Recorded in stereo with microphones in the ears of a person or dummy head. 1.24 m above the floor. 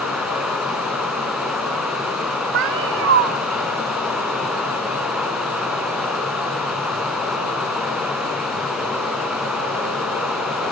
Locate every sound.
0.0 s running water: 5° left (ahead or behind), 4 m
2.5 s a cat meowing: 70° right (ahead or behind), 1.5 m